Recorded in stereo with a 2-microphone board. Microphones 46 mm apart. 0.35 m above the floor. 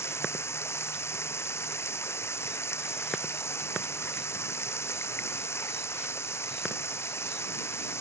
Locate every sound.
0.0 s running water: 75° left (ahead or behind)